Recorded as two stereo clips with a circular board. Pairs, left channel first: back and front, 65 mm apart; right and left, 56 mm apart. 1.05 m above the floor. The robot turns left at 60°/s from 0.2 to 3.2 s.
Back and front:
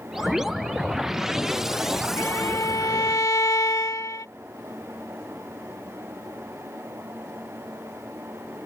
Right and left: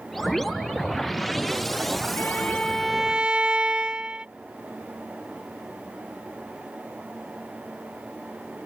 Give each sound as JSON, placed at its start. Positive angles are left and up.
{"t": 2.2, "sound": "a violin", "azimuth_deg": -140}